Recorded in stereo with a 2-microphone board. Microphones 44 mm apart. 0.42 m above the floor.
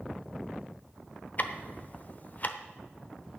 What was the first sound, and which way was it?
Ticking, 40° left (ahead or behind).